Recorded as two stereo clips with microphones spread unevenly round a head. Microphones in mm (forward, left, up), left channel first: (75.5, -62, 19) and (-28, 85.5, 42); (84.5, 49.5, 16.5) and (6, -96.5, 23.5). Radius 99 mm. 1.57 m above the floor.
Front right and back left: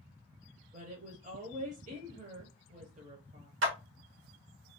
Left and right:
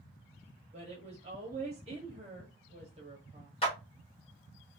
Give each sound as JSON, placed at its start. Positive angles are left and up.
{"t": 0.7, "sound": "a woman speaking", "azimuth_deg": 180, "distance_m": 1.0}
{"t": 3.6, "sound": "a clap", "azimuth_deg": 125, "distance_m": 1.3}